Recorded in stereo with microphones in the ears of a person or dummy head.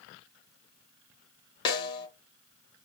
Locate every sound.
1.6 s a snare drum: 25° left (ahead or behind), 0.8 m